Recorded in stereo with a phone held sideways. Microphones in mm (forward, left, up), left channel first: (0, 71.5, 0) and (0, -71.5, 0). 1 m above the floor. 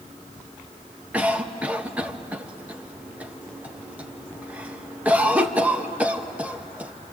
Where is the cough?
10° right (ahead or behind), 1.2 m.